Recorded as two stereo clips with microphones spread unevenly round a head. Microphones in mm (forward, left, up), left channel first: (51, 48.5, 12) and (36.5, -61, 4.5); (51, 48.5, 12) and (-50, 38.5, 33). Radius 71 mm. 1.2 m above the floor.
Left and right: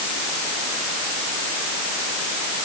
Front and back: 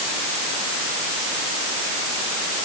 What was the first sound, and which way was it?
Only background noise.